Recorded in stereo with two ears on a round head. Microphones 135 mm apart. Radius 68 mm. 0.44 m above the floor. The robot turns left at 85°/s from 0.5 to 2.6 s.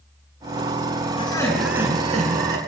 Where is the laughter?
40° left, 5 m; by 2.6 s 80° right, 5 m.